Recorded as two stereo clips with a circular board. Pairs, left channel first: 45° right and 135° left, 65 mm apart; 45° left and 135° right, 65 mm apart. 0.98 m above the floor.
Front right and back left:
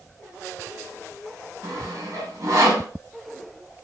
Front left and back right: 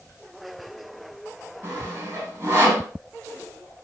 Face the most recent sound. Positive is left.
turn(degrees=180)